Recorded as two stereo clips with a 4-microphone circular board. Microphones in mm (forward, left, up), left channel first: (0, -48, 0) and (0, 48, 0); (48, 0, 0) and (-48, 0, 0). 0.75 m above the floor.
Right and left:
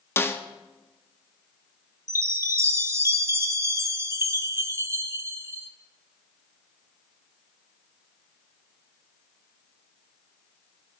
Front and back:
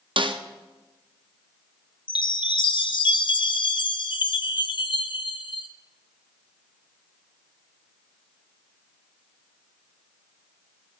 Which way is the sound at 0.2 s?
155° right.